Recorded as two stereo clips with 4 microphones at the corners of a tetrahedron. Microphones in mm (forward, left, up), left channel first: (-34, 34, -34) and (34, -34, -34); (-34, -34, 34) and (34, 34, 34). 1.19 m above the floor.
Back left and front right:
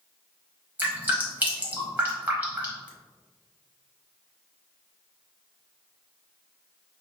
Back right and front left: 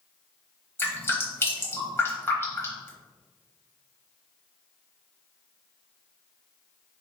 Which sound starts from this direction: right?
Dripping, at 0.8 s.